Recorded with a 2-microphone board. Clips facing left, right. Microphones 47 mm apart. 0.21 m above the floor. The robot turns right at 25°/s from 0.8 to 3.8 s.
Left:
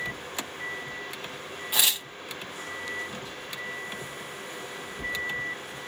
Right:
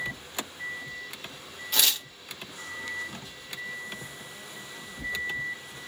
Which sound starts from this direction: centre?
Tearing paper, at 1.7 s.